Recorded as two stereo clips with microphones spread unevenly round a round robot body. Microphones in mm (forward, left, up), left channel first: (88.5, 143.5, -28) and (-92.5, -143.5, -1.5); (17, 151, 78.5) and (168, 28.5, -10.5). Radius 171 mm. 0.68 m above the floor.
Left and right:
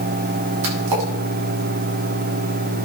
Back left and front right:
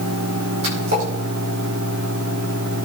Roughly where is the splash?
Right.